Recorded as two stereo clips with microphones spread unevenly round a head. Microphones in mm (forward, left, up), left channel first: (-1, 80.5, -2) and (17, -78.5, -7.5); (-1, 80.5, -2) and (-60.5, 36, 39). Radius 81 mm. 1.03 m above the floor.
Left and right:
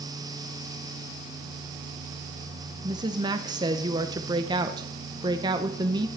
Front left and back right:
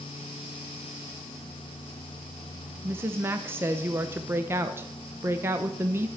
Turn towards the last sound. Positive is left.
turn(degrees=-55)